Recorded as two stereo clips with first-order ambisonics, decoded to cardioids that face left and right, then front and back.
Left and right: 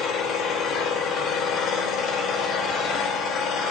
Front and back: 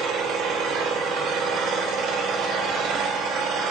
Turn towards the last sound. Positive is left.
turn(degrees=140)